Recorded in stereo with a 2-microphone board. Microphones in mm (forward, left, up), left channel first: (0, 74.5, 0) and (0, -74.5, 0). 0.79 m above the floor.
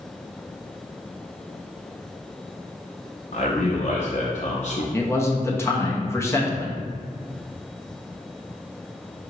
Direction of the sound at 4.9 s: 15° left (ahead or behind).